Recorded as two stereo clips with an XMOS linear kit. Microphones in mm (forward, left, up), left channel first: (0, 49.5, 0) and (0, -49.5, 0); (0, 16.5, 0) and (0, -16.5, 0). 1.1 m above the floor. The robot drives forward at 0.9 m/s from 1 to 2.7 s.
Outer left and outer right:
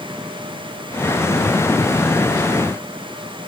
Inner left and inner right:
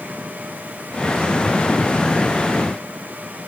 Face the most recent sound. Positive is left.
No sound to turn to.